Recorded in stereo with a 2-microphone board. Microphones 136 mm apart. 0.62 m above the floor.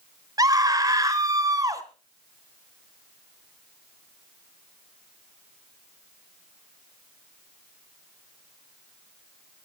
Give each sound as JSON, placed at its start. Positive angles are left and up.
{"t": 0.4, "sound": "a scream", "side_deg": -30, "distance_m": 3.0}